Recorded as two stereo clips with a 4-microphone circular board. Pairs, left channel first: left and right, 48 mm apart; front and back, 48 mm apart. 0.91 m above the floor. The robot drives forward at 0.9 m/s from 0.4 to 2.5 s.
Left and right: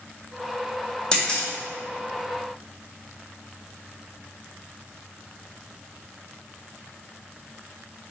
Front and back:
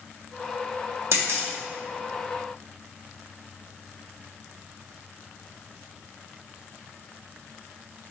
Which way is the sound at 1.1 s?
165° left.